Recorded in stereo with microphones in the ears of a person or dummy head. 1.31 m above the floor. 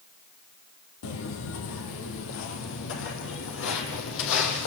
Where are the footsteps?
60° left (ahead or behind), 2.5 m; by 4.7 s 65° left (ahead or behind), 4.5 m.